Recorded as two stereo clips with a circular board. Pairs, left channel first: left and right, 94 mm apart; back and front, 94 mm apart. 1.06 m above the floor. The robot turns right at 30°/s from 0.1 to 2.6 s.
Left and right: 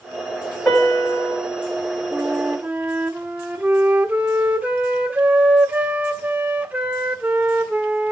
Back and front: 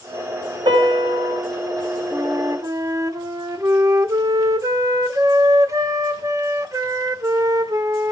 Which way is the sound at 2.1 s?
40° right.